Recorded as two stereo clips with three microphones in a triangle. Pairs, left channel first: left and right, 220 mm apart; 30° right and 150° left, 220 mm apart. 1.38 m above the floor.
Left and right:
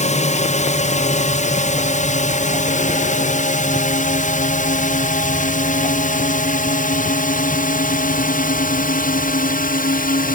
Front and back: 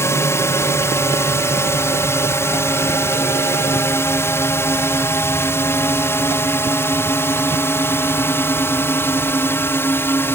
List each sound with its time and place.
0.0 s a drone: 45° left; by 10.3 s 50° left